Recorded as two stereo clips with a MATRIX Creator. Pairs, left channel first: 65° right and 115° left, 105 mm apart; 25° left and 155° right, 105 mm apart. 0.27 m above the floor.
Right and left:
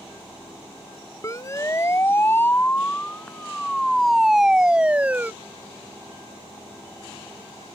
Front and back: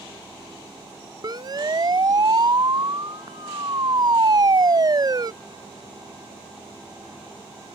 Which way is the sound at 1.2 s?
120° right.